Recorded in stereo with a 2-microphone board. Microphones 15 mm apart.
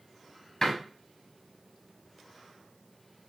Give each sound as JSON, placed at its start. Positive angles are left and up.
{"t": 0.6, "sound": "a door slam", "side_deg": 30, "distance_m": 1.3}